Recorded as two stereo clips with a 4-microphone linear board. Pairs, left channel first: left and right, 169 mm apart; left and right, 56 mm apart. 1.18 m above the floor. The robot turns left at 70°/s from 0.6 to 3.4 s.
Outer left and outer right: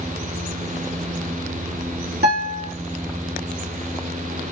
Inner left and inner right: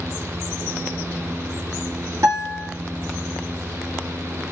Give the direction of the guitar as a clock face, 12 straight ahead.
3 o'clock.